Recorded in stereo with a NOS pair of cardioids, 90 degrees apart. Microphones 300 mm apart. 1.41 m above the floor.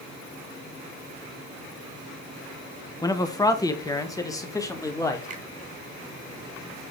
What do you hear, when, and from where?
3.0 s a man speaking: 15° left, 1.1 m; by 5.3 s 10° left, 2.5 m
5.3 s a finger snap: 25° right, 1.8 m